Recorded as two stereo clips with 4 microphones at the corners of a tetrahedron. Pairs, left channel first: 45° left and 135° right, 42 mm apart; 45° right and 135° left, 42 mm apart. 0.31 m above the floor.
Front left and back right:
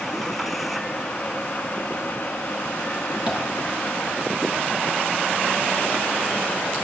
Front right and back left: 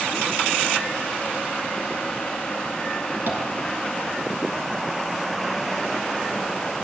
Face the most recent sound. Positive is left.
turn(degrees=165)